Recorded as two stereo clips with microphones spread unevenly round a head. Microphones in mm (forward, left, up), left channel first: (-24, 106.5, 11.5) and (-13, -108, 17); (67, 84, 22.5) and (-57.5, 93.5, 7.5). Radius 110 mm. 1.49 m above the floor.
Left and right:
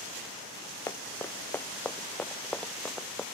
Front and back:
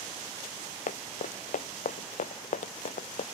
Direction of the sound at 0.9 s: 15° left.